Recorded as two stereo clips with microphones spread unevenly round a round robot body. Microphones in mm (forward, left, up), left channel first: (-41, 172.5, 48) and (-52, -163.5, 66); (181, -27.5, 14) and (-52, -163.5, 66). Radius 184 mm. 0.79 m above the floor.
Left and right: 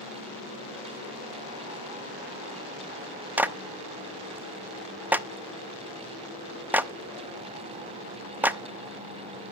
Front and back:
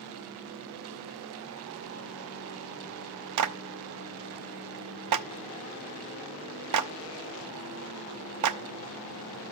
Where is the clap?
Straight behind, 0.6 m.